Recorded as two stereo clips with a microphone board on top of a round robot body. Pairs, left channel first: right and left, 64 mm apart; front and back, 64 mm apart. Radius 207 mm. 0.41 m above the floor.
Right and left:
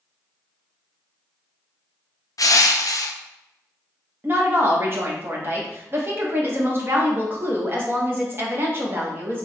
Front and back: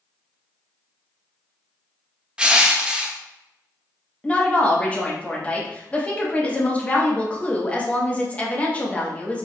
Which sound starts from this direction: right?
Crushing, at 2.4 s.